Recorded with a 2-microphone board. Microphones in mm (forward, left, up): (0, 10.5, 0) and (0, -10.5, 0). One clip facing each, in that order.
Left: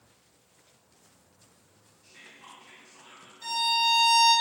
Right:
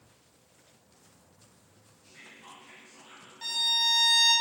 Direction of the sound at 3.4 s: 65° right (ahead or behind).